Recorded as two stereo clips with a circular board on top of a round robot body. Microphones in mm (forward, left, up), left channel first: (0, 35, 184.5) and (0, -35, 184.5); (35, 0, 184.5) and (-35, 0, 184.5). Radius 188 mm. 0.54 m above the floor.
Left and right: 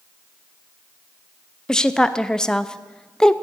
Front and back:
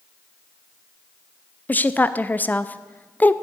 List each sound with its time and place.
1.7 s a woman speaking: 20° left, 0.7 m